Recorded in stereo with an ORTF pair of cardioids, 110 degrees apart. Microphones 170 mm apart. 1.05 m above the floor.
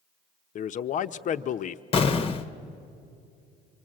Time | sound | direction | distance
0.6 | a man speaking | 50° left | 0.8 m
1.9 | an explosion | 35° left | 0.9 m